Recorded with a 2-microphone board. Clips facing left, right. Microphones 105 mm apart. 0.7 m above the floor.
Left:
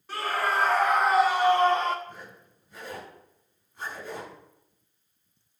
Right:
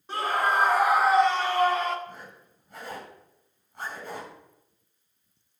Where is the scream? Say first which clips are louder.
Right 2 dB; 25° right (ahead or behind), 2 m; by 2.0 s 30° left (ahead or behind), 1.3 m.